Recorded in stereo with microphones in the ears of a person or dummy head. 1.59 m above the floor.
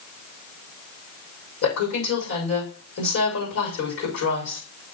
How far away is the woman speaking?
About 6 m.